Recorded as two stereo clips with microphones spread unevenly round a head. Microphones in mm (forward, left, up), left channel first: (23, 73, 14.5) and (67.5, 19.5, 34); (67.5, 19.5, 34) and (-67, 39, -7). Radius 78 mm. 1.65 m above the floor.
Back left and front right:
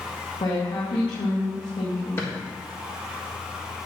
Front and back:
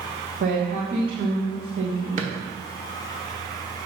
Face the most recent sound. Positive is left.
turn(degrees=-165)